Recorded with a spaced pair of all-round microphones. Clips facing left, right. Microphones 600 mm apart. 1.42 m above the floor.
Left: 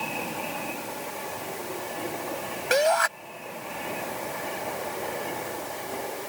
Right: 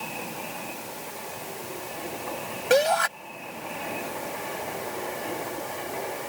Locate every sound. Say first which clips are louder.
2.7 s a shout: right 2 dB; 60° right (ahead or behind)